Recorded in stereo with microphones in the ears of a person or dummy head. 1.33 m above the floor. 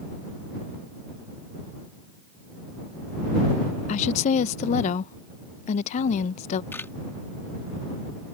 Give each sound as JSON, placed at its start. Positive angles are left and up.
{"t": 3.9, "sound": "a woman speaking", "side_deg": 40}
{"t": 6.7, "sound": "a camera shutter", "side_deg": 15}